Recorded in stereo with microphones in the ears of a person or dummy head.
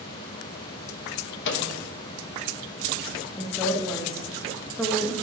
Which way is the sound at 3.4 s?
5° left (ahead or behind).